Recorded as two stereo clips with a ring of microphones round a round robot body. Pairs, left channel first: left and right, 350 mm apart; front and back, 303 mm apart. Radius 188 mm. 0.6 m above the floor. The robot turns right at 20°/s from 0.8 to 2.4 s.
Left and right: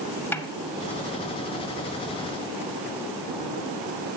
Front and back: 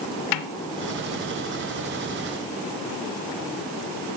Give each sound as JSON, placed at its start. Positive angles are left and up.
{"t": 0.3, "sound": "a snare drum", "azimuth_deg": 5, "distance_m": 0.7}